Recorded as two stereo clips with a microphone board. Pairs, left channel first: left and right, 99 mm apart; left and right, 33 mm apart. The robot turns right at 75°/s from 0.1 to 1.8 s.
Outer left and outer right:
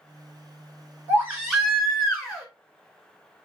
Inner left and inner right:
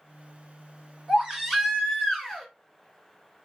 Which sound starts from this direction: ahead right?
A baby crying, at 1.1 s.